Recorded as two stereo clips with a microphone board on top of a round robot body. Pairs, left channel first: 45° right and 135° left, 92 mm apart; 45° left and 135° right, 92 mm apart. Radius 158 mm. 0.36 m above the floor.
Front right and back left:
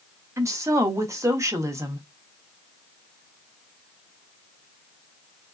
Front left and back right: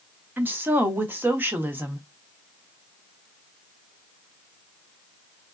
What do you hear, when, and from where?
0.4 s a woman speaking: 170° left, 1.2 m